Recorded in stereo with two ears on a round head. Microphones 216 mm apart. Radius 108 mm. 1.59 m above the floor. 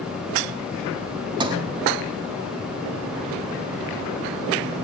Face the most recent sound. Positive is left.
turn(degrees=-20)  # may be behind; listen again after turning